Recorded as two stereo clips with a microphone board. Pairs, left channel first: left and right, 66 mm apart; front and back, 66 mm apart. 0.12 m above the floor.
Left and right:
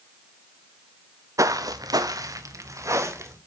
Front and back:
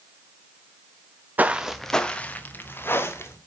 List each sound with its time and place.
1.4 s footsteps: 120° right, 0.7 m; by 3.4 s 50° right, 2.0 m